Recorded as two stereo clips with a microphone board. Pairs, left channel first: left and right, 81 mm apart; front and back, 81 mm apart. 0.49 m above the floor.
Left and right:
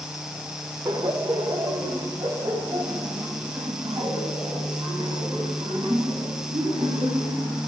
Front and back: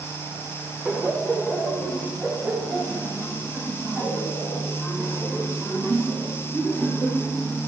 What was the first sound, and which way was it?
Laughter, 105° right.